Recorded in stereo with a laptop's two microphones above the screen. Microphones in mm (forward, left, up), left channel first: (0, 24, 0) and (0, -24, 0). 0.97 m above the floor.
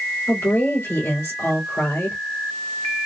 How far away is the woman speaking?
About 2.5 m.